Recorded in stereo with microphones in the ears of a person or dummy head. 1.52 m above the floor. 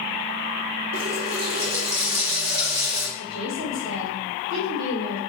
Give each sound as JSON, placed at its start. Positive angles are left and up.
{"t": 0.9, "sound": "a running tap", "side_deg": -55, "distance_m": 0.9}
{"t": 3.2, "sound": "a woman speaking", "side_deg": -75, "distance_m": 1.9}